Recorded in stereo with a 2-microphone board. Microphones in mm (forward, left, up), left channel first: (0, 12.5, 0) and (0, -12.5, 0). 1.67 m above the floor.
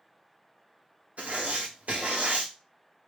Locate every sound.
1.2 s writing: 70° right (ahead or behind), 1.0 m